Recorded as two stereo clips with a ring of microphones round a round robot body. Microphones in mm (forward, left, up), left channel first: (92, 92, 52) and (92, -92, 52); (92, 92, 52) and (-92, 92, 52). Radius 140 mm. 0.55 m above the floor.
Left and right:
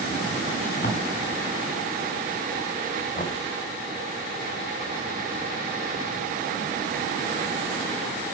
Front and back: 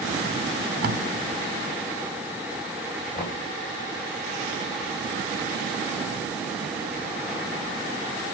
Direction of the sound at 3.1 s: 40° left.